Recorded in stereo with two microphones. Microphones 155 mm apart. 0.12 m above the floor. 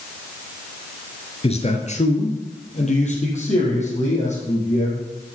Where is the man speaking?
40° left (ahead or behind), 1.4 m; by 5.0 s 45° left (ahead or behind), 4.5 m.